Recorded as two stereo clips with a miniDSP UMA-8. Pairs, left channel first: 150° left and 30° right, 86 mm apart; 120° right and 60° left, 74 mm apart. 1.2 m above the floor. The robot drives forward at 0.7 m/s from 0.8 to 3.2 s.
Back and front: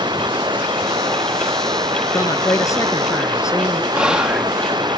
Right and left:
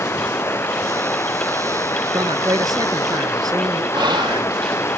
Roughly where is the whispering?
Ahead left.